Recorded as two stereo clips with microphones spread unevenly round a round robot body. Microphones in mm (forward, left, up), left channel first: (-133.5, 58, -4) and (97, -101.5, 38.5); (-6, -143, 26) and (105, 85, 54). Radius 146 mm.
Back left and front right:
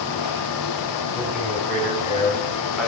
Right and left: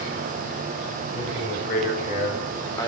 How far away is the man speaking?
About 2.5 m.